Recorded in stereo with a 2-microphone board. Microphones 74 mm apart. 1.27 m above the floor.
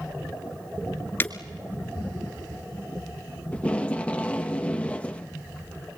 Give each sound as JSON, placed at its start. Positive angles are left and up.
{"t": 1.2, "sound": "breaking glass", "side_deg": 30, "distance_m": 1.4}
{"t": 3.5, "sound": "tape being pulled", "side_deg": 15, "distance_m": 1.1}